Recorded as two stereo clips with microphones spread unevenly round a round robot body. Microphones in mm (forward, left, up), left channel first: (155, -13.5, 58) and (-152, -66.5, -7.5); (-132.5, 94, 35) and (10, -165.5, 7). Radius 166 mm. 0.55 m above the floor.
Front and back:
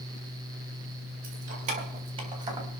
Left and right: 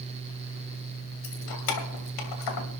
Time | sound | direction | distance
1.2 | keys jangling | 130° left | 3 m